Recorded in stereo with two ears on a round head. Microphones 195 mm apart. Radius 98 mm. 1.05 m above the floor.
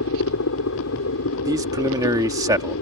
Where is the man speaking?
15° right (ahead or behind).